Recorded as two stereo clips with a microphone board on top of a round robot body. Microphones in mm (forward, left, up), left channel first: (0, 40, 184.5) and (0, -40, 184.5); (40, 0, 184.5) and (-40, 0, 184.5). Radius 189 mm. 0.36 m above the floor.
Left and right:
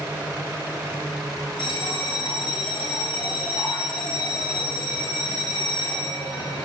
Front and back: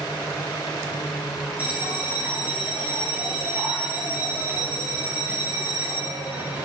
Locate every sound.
1.6 s a bell: 105° left, 7 m